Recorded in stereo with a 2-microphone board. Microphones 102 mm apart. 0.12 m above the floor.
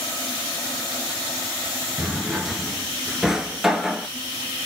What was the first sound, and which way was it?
A drawer, 5° right (ahead or behind).